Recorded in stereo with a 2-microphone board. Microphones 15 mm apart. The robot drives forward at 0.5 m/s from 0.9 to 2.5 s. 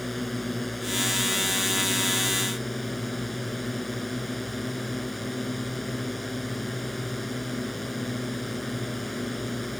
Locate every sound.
0.0 s a drone: 10° left (ahead or behind)